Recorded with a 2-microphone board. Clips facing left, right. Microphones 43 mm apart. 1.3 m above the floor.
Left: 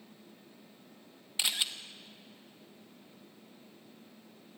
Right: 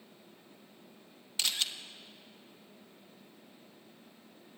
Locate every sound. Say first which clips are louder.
1.4 s a camera shutter: left 1 dB; 15° left (ahead or behind), 1.4 m